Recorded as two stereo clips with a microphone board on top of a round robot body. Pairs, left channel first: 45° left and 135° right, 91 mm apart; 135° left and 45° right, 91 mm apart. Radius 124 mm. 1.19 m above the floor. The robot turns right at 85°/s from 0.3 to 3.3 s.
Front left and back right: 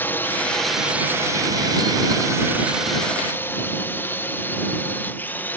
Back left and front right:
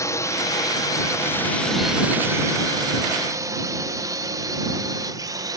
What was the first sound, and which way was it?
A drone, 105° left.